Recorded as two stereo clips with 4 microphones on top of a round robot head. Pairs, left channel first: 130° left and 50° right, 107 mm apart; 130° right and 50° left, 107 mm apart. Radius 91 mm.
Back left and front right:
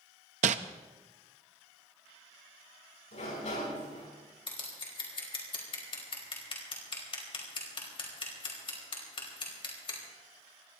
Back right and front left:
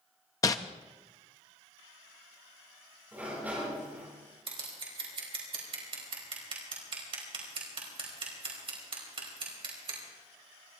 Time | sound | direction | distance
0.4 | crumpling | 70° right | 0.5 m
3.1 | a sliding door | 125° left | 8 m
4.5 | scissors | 90° left | 4 m